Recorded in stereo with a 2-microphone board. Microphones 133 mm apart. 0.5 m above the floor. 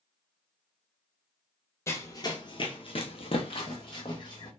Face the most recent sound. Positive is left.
turn(degrees=35)  # may be behind; listen again after turning